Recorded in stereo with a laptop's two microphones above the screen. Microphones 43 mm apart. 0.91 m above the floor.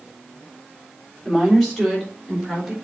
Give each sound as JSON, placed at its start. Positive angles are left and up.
{"t": 1.2, "sound": "a woman speaking", "side_deg": 10, "distance_m": 3.0}